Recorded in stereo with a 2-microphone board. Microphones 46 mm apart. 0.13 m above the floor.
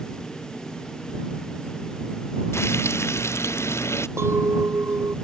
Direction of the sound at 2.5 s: 80° left.